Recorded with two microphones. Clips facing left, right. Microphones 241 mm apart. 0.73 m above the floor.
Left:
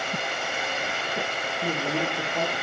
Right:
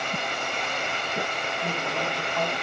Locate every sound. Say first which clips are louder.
1.6 s a man speaking: left 5 dB; 40° left (ahead or behind), 0.9 m